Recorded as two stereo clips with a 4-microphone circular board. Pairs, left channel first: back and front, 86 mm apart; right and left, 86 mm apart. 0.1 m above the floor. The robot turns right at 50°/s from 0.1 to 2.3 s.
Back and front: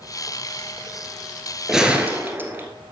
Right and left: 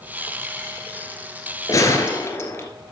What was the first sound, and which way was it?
A gunshot, 85° right.